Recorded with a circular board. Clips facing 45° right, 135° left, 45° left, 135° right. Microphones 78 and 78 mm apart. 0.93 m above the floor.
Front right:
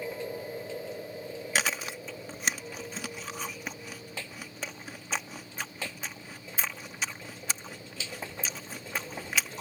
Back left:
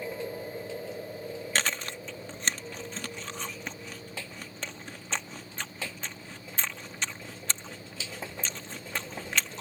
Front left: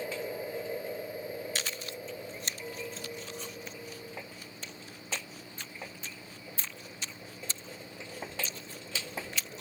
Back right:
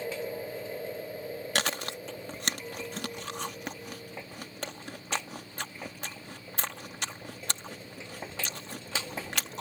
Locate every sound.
1.6 s chewing: 125° right